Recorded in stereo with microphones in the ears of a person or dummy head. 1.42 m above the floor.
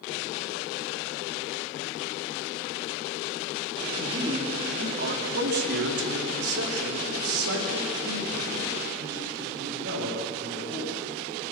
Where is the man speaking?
20° right (ahead or behind), 4 m; by 10.9 s 70° right (ahead or behind), 9.5 m.